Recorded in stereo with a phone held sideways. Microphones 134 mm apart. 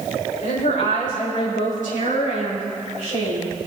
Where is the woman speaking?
80° left, 4 m; by 3.6 s 65° left (ahead or behind), 4.5 m.